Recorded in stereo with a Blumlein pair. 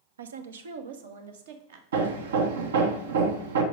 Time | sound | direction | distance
0.2 | a woman speaking | 65° right | 0.6 m
1.9 | hammering | 60° right | 0.9 m